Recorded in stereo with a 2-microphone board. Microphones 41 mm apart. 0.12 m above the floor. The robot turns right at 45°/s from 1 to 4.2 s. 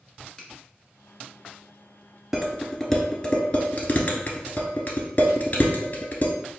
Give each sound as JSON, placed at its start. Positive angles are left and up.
{"t": 0.4, "sound": "a finger snap", "side_deg": 20, "distance_m": 0.9}
{"t": 2.3, "sound": "dishes clattering", "side_deg": -5, "distance_m": 0.9}